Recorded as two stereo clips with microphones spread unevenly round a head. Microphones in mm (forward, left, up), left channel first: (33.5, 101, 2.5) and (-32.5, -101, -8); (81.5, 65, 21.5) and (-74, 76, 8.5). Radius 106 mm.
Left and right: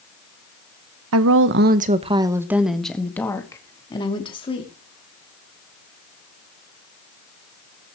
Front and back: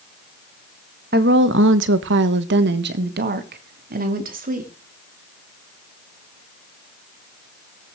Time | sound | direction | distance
1.1 | a woman speaking | 130° right | 1.1 m